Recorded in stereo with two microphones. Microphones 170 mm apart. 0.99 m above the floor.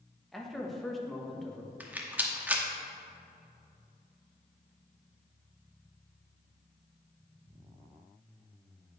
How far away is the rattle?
About 0.9 m.